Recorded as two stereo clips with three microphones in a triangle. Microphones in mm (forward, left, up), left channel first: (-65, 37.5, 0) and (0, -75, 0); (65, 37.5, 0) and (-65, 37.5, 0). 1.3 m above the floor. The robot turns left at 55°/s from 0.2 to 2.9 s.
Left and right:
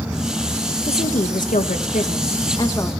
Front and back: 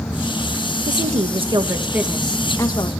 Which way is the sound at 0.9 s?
165° left.